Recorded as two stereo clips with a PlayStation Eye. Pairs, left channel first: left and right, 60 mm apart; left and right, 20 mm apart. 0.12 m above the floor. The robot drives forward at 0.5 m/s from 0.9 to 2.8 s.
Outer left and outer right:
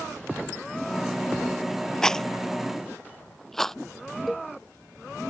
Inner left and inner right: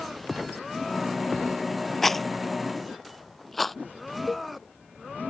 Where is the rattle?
10° left (ahead or behind); by 3.8 s 5° left (ahead or behind).